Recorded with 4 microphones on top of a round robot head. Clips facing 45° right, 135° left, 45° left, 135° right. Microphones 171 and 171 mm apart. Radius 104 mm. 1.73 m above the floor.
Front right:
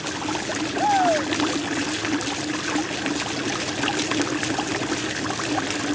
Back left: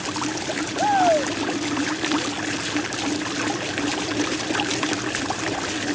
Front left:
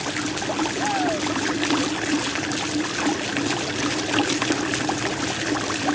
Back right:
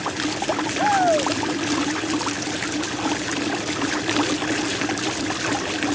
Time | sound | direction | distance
0.8 | a shout | 170° right | ?